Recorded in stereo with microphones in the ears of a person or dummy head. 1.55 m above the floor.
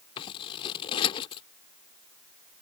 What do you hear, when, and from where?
0.2 s scissors: 30° left (ahead or behind)